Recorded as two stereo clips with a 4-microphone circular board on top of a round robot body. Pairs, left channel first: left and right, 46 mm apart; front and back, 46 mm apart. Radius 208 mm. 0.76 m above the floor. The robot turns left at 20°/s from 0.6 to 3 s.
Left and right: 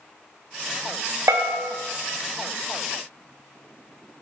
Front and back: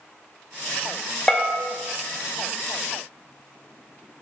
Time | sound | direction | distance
1.3 | a bell | 80° right | 0.5 m